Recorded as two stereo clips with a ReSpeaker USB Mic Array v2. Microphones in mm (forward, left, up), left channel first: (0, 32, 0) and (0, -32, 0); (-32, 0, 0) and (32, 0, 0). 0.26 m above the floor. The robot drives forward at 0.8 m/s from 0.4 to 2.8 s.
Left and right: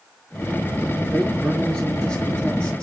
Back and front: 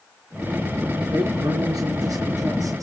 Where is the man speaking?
15° left, 4.5 m; by 2.8 s 20° left, 3 m.